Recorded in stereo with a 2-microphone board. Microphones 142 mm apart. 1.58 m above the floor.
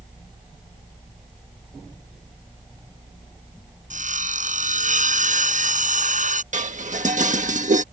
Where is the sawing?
65° right (ahead or behind).